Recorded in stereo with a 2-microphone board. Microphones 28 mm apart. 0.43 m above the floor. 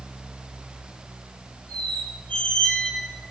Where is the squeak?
55° left (ahead or behind), 5 m.